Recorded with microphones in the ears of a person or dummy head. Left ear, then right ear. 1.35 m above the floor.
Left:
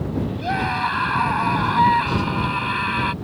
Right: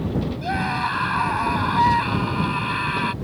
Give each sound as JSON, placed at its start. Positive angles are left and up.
{"t": 0.4, "sound": "a scream", "side_deg": 5}